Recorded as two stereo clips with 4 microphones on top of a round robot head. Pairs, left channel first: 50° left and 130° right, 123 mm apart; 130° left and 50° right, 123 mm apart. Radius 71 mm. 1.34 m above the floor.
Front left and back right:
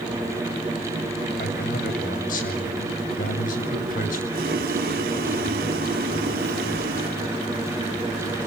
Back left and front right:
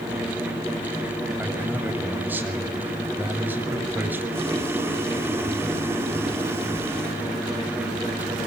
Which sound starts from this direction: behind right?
Boiling, at 4.3 s.